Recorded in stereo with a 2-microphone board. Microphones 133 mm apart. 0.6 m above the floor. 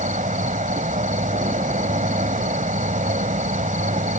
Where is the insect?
80° right.